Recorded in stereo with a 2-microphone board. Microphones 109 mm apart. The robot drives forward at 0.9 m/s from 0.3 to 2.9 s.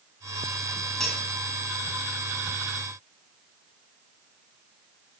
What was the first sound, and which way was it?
Cutlery clinking, centre (ahead or behind).